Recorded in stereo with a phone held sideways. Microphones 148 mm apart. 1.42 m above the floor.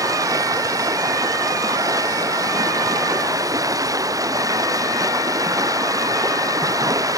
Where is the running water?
20° right (ahead or behind).